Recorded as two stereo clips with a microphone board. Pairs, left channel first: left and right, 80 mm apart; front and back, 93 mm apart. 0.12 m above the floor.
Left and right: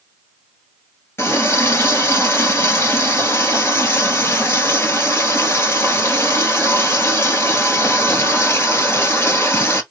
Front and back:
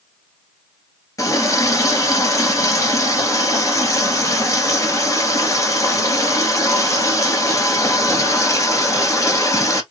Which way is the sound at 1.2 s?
40° left.